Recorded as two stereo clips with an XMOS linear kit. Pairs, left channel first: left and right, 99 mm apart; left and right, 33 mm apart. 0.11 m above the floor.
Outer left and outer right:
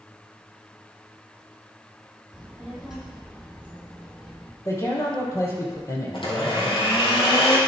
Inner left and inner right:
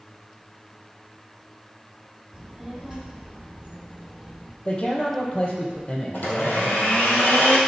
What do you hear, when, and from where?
2.3 s a child speaking: 5° right (ahead or behind), 3.5 m
4.7 s a man speaking: 30° left (ahead or behind), 3 m
6.1 s a blender: 60° left (ahead or behind), 2.5 m